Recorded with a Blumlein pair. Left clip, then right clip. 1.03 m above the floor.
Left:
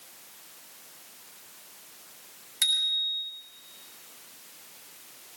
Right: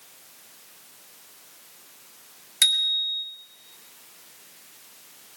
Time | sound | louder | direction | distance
2.6 | a bicycle bell | right 4 dB | 70° right | 4.5 m